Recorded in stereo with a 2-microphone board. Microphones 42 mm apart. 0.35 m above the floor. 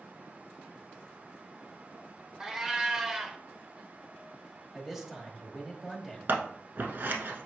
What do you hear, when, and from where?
2.4 s a cat meowing: 15° right (ahead or behind), 0.6 m
4.7 s a man speaking: 10° right (ahead or behind), 0.9 m
6.3 s scissors: 55° right (ahead or behind), 0.8 m